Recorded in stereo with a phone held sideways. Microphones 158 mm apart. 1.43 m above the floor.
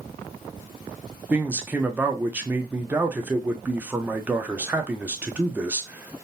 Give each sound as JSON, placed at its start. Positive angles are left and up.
{"t": 1.3, "sound": "a man speaking", "side_deg": -10, "distance_m": 0.7}